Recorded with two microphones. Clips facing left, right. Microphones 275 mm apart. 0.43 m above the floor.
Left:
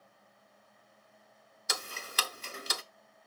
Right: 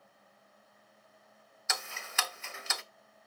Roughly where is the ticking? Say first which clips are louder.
Left 2 dB; left.